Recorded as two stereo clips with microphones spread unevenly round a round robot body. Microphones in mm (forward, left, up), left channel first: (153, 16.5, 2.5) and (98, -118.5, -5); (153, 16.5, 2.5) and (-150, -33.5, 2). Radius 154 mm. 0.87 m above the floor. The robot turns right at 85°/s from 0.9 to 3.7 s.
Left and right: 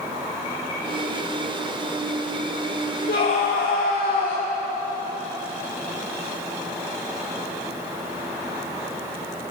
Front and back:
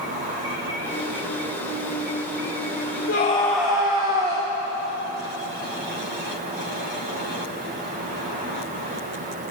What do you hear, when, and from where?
3.1 s a scream: 60° left, 2.5 m; by 4.5 s 115° left, 2.5 m